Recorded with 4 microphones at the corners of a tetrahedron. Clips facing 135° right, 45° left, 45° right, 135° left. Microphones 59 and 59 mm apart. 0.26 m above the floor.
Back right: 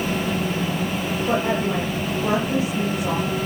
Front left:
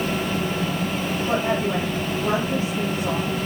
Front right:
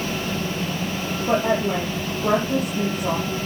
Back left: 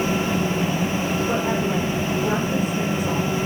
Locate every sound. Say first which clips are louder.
1.3 s a woman speaking: back right 1 dB, front right 6 dB; 65° right, 6 m